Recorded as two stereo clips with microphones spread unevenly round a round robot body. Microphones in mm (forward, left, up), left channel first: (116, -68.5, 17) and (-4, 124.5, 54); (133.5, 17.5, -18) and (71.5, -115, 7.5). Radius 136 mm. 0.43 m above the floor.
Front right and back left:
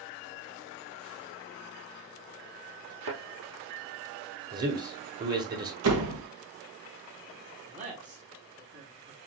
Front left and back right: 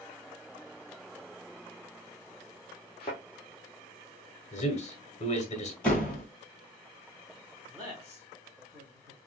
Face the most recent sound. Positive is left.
turn(degrees=165)